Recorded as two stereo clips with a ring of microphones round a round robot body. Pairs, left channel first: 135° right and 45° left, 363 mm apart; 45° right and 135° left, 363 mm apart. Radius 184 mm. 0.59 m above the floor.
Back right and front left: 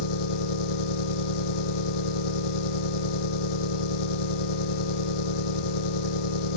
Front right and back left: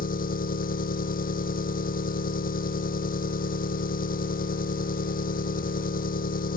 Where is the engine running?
115° right.